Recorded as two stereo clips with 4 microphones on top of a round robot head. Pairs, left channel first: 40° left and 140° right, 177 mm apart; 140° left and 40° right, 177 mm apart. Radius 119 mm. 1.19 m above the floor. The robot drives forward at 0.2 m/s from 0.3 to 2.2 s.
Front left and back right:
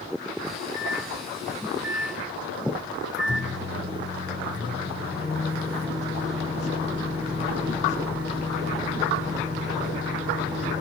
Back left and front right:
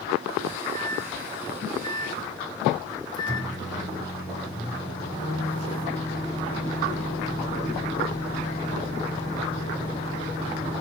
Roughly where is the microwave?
Behind right.